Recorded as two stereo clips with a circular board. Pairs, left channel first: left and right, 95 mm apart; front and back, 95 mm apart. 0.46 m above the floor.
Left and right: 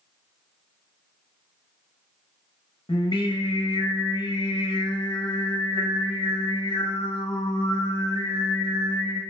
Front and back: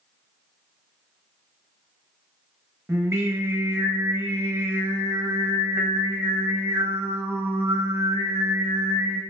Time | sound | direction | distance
2.9 | singing | 115° left | 0.8 m